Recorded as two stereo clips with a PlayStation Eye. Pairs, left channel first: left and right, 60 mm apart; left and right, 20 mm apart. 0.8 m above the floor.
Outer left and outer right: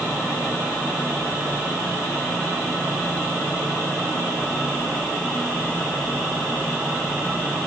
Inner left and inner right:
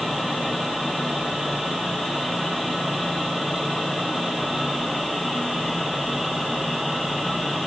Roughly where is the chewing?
I don't hear chewing.